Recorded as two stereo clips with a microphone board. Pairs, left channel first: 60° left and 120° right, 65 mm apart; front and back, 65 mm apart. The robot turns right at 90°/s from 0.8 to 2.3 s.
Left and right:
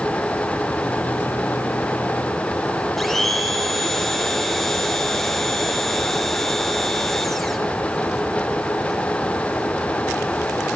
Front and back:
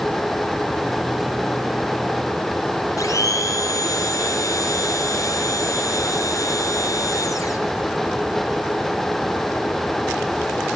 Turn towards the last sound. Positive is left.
turn(degrees=-25)